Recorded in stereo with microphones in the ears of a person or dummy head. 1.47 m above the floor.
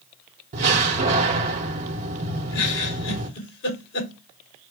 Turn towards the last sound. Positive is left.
turn(degrees=60)  # may be behind; listen again after turning